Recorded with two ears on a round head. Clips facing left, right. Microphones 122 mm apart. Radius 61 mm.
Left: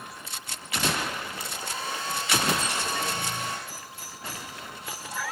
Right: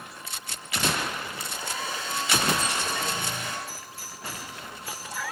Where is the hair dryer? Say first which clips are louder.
Right 1 dB; 60° right (ahead or behind), 5.5 m.